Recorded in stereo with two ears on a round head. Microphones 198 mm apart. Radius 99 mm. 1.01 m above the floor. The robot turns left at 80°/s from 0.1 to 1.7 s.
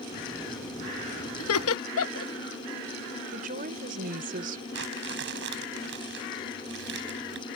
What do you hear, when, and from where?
1.4 s laughter: 70° left (ahead or behind)
3.3 s a woman speaking: 40° right (ahead or behind)
4.7 s crumpling: 55° right (ahead or behind)